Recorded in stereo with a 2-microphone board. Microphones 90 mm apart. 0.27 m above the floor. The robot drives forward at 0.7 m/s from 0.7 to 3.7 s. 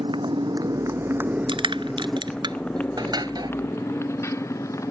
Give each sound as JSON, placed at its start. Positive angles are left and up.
{"t": 0.0, "sound": "a motorcycle", "side_deg": -65}
{"t": 1.5, "sound": "crushing", "side_deg": -70}